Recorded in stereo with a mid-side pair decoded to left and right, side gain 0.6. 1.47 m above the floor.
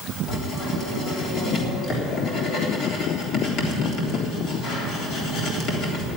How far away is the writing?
About 3.5 m.